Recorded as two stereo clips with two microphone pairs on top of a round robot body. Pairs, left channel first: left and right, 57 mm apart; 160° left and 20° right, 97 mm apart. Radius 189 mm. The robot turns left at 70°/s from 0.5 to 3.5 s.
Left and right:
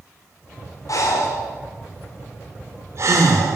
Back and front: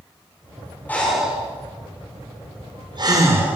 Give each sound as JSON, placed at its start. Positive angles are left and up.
{"t": 0.9, "sound": "breathing", "azimuth_deg": 85, "distance_m": 2.0}